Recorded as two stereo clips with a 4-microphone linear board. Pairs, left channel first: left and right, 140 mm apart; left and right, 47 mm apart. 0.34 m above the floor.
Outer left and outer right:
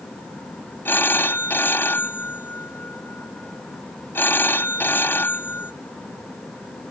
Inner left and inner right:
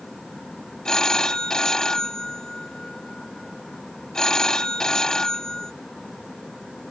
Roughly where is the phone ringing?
Centre.